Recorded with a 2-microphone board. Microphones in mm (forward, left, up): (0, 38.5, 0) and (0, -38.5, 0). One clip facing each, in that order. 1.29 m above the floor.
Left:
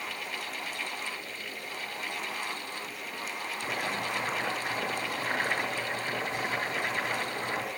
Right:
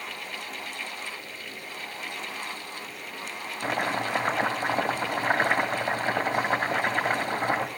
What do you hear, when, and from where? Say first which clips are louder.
3.6 s chopping: right 7 dB; 55° right (ahead or behind), 2.5 m